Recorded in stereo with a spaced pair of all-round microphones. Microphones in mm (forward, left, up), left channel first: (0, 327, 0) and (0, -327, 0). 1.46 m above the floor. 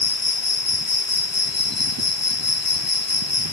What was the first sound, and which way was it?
An insect, 50° left (ahead or behind).